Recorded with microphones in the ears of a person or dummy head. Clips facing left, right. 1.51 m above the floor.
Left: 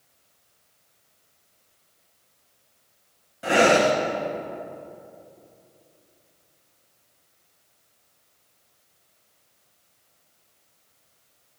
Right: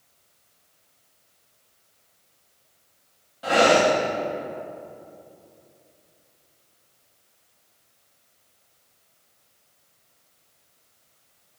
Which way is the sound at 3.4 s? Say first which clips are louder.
Even; 30° left (ahead or behind).